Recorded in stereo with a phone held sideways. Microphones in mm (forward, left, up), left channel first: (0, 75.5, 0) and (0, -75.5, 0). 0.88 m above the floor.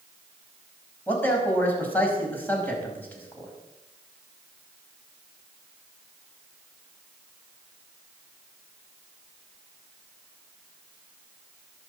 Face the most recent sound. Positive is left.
turn(degrees=10)  # may be behind; listen again after turning